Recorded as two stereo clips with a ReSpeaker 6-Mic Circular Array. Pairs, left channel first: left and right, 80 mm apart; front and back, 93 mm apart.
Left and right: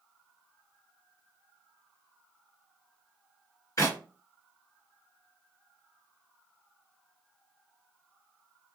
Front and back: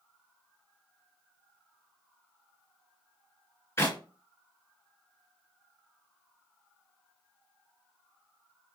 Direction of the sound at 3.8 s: 55° left.